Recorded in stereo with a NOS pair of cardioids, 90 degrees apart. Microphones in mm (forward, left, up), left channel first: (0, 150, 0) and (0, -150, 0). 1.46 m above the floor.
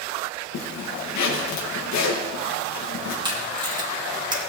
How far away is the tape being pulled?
About 2 m.